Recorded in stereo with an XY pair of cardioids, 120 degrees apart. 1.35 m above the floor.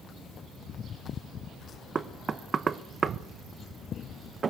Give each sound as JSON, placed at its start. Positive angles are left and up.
{"t": 1.9, "sound": "knocking", "azimuth_deg": -30, "distance_m": 0.8}